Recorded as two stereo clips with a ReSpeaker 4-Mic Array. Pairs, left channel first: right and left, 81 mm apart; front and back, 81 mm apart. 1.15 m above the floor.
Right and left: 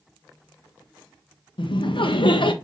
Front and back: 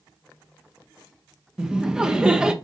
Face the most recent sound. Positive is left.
turn(degrees=-100)